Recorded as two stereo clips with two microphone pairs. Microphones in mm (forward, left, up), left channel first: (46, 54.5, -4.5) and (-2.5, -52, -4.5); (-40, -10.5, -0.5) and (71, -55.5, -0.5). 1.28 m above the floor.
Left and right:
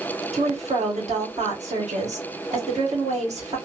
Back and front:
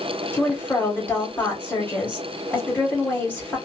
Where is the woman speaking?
125° right, 1.5 m.